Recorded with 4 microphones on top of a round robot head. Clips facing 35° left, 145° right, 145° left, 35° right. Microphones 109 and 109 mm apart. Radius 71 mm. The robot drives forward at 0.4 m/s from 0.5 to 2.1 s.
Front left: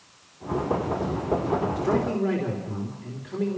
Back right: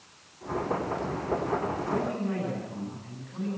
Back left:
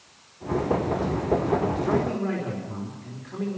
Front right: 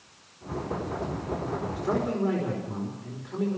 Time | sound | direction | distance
1.8 | a man speaking | 45° left | 5 m